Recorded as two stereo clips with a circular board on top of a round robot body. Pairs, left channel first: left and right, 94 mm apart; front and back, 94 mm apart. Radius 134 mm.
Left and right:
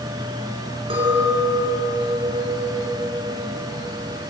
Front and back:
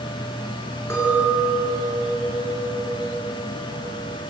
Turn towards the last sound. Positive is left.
turn(degrees=-65)